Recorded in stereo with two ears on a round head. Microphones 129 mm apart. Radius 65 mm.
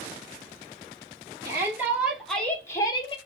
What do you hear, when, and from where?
1.4 s a shout: 20° right (ahead or behind), 2.0 m; by 3.2 s 35° left (ahead or behind), 1.4 m